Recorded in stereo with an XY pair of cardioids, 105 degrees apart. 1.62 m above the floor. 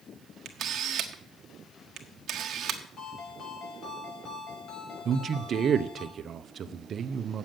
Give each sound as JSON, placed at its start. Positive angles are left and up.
{"t": 0.5, "sound": "a camera shutter", "azimuth_deg": -60, "distance_m": 1.5}
{"t": 3.0, "sound": "a ringtone", "azimuth_deg": 60, "distance_m": 6.0}
{"t": 5.0, "sound": "a man speaking", "azimuth_deg": -50, "distance_m": 0.8}